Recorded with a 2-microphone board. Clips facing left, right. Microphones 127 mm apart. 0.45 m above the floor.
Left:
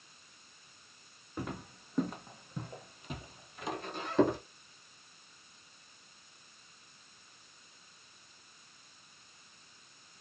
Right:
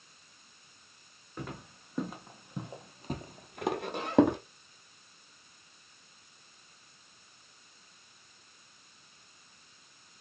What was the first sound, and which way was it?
Footsteps, 10° left (ahead or behind).